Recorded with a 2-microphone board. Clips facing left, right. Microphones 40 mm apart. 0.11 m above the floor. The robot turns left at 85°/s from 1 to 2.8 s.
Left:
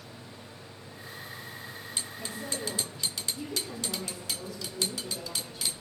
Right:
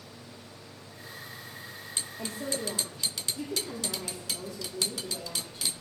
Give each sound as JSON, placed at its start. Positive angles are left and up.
{"t": 2.2, "sound": "a woman speaking", "azimuth_deg": -110, "distance_m": 6.0}